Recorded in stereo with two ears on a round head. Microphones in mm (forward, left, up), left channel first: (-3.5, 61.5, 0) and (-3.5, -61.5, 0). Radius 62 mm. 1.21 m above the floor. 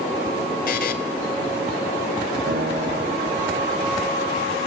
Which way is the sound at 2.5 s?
75° right (ahead or behind).